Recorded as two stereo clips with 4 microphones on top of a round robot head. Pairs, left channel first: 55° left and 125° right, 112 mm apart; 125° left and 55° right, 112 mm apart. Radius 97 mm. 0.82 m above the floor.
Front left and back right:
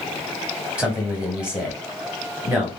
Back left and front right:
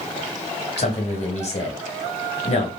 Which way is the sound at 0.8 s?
150° left.